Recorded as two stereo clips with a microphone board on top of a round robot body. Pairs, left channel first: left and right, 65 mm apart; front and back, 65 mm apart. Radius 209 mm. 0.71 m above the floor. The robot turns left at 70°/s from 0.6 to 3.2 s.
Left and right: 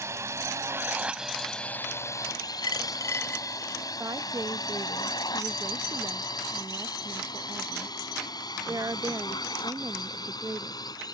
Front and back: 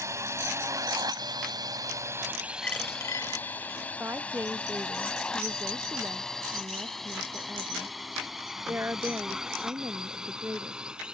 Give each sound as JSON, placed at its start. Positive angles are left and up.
{"t": 0.0, "sound": "a drone", "azimuth_deg": -140}
{"t": 2.6, "sound": "a dropped coin", "azimuth_deg": 75}
{"t": 4.0, "sound": "a woman speaking", "azimuth_deg": -120}